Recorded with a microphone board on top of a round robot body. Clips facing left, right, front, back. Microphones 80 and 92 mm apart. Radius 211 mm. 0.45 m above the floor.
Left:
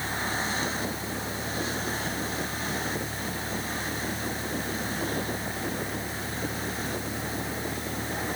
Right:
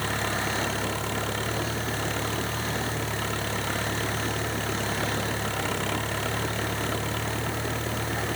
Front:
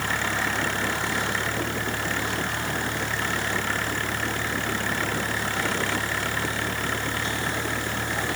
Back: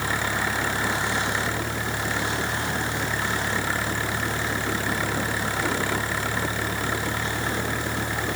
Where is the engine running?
100° right.